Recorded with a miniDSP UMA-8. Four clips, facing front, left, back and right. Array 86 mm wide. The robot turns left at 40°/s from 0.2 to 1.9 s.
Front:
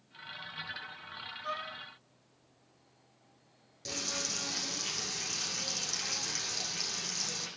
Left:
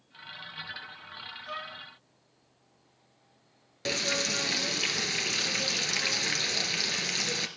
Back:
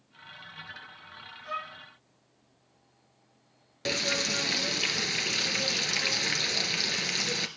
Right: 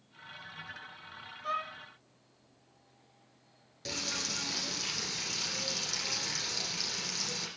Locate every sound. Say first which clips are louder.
1.4 s a violin: right 5 dB, back 2 dB; 60° right, 6 m; by 1.7 s 70° right, 6 m
3.9 s frying: left 8 dB, back 9 dB; 145° left, 1.8 m